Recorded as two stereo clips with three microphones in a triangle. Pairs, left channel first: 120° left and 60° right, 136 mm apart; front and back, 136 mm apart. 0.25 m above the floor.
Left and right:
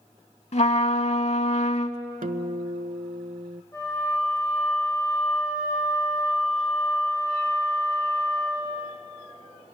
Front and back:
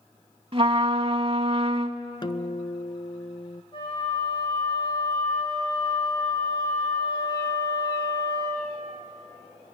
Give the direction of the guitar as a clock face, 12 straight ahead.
2 o'clock.